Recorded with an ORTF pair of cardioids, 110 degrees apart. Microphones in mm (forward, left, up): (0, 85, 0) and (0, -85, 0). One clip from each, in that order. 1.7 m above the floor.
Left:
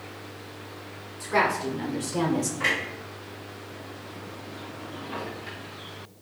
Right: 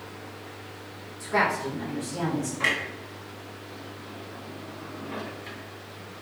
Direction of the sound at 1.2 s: 10° left.